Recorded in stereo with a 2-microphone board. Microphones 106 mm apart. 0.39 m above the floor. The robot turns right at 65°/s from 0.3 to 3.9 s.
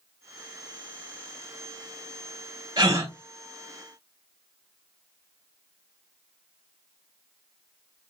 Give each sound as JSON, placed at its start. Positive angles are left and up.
{"t": 2.8, "sound": "a gasp", "side_deg": -40, "distance_m": 1.9}